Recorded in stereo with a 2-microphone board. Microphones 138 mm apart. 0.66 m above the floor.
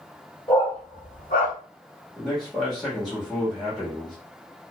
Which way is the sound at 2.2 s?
Centre (ahead or behind).